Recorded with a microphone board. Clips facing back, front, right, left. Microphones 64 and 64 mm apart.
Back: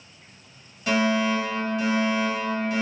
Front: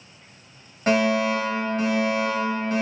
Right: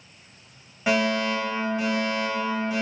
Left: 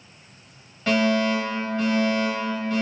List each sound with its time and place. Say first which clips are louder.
0.9 s a fire alarm: front 2 dB, left 2 dB; 20° right, 2.5 m